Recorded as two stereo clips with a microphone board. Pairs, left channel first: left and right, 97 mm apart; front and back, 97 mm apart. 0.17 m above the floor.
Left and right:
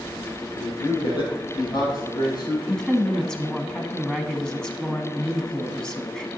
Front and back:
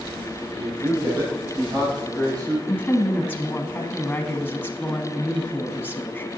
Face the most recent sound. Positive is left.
turn(degrees=20)